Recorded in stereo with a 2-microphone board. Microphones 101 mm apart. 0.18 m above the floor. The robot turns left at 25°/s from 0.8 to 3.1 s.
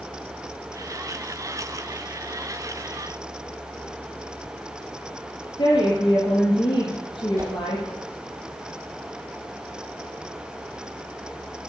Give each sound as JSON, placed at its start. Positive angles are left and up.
{"t": 5.6, "sound": "a woman speaking", "side_deg": 60, "distance_m": 4.0}
{"t": 7.4, "sound": "a whoosh", "side_deg": -35, "distance_m": 3.0}